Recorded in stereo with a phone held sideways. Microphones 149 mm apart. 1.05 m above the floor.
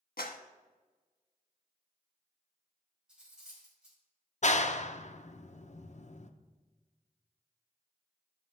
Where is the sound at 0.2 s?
85° left, 1.1 m.